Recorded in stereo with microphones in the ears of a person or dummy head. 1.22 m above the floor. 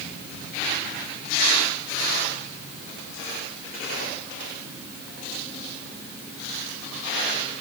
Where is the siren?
I don't hear a siren.